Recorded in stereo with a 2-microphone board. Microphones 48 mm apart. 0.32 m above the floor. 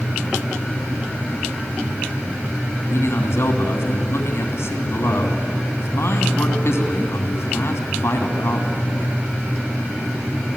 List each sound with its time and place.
2.9 s a man speaking: 65° left (ahead or behind), 2.5 m